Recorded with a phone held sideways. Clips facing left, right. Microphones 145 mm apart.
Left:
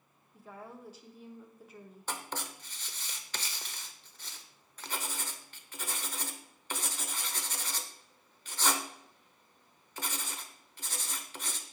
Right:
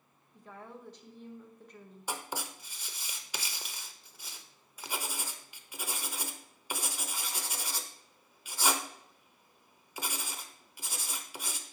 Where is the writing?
10° right (ahead or behind), 0.8 m.